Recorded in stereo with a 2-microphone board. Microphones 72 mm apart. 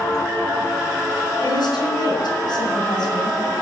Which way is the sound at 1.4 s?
70° left (ahead or behind).